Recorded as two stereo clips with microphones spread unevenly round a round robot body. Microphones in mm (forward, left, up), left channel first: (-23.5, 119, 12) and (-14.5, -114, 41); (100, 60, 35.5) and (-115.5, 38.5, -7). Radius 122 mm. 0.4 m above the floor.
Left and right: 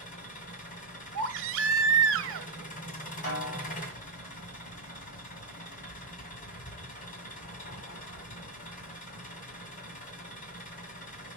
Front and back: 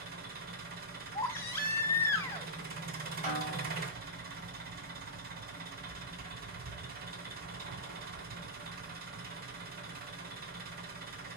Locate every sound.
0.0 s an engine running: 145° left, 1.8 m
1.1 s a baby crying: 80° right, 0.9 m
3.2 s a snare drum: 135° left, 4 m